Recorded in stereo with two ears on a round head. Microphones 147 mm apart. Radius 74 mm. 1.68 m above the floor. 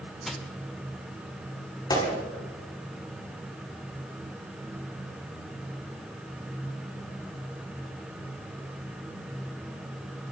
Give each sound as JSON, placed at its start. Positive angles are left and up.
{"t": 0.2, "sound": "crushing", "side_deg": 0, "distance_m": 1.8}
{"t": 1.9, "sound": "a gunshot", "side_deg": 25, "distance_m": 6.5}